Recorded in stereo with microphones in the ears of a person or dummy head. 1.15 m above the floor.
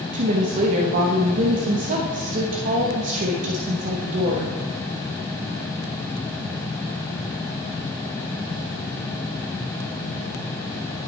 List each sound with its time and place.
0.1 s a woman speaking: 45° right (ahead or behind), 1.1 m